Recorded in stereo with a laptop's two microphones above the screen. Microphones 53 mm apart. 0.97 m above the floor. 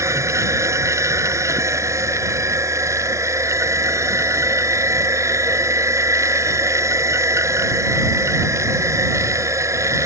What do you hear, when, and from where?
0.0 s a machine running: 75° right (ahead or behind)